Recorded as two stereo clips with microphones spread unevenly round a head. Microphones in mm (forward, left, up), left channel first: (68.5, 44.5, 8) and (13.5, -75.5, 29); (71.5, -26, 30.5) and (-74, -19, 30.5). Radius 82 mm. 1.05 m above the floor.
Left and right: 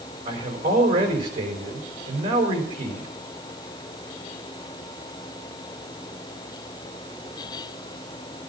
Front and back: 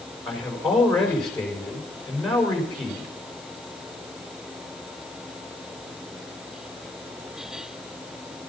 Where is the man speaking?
90° right, 5 m.